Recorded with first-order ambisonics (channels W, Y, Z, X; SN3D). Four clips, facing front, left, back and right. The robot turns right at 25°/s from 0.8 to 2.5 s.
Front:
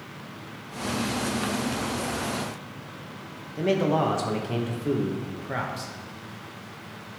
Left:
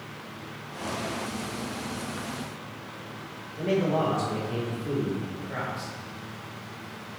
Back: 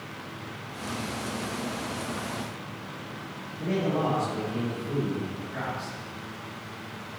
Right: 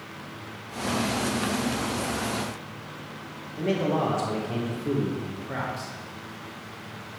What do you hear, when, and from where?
3.6 s a man speaking: 10° right, 2 m